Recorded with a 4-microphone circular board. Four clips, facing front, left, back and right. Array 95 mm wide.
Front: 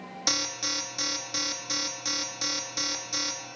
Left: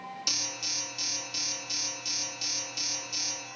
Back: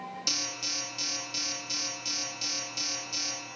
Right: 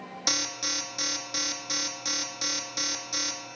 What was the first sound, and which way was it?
An alarm, 45° right.